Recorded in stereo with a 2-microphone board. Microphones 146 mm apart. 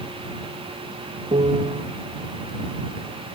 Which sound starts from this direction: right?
A piano, at 1.3 s.